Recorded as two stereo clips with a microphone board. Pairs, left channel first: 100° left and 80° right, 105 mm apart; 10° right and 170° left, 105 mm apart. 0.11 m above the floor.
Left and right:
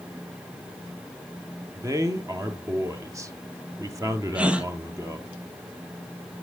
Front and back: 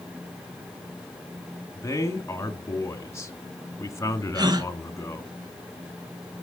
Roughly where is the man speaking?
Ahead right.